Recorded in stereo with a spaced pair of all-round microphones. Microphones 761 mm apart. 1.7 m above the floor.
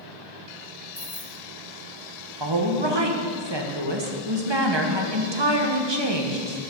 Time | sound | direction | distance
0.9 | keys jangling | 5° left (ahead or behind) | 2 m
2.4 | a woman speaking | 35° right (ahead or behind) | 1.4 m